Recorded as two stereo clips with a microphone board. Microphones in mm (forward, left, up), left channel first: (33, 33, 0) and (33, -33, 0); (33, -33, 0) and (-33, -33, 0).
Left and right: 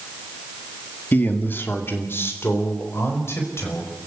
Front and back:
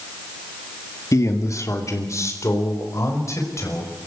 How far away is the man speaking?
About 1.9 m.